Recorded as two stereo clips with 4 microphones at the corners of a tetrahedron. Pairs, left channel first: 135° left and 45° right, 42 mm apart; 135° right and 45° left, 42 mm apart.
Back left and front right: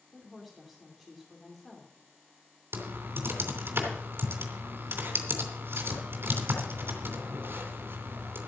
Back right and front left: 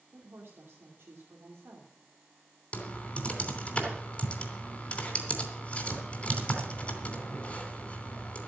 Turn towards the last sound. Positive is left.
turn(degrees=-70)